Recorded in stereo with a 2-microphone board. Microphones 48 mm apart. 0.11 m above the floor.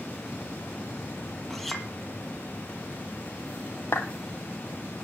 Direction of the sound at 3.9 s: 55° left (ahead or behind).